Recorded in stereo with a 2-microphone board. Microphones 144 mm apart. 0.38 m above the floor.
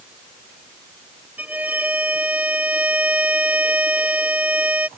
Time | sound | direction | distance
1.4 | a violin | 10° right (ahead or behind) | ?